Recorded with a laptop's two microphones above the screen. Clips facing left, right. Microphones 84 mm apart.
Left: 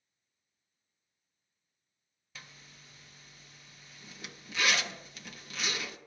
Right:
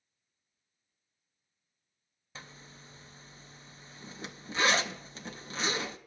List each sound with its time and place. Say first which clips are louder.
2.4 s a zipper: right 4 dB; 35° right (ahead or behind), 0.5 m